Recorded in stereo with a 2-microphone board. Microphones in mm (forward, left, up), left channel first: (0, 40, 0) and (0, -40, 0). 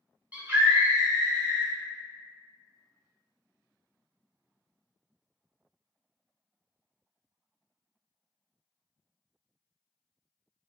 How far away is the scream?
About 1.2 m.